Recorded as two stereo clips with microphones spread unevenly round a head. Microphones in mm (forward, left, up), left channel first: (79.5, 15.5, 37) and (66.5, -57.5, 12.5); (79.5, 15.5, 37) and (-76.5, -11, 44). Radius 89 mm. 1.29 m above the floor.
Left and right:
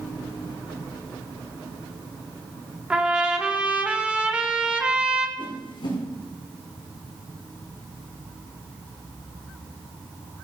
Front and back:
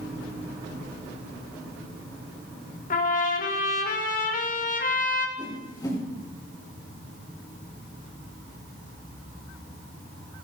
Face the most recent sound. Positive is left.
turn(degrees=75)